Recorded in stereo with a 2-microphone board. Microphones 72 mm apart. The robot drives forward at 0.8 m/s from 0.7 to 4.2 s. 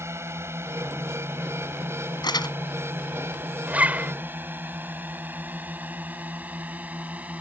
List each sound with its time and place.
0.0 s a drone: 35° right (ahead or behind); by 7.4 s 20° right (ahead or behind)
2.2 s crumpling: 75° left (ahead or behind)
3.7 s a zipper: 20° right (ahead or behind)